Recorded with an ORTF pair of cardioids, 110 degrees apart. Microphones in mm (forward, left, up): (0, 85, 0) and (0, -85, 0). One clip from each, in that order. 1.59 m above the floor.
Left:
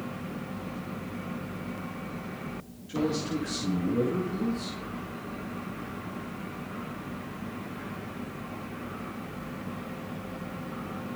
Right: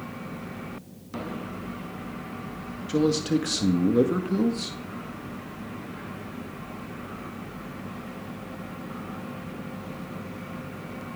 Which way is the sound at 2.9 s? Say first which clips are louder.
Right 6 dB; 60° right.